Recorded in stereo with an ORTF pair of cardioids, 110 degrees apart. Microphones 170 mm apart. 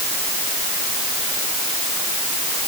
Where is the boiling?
I don't hear boiling.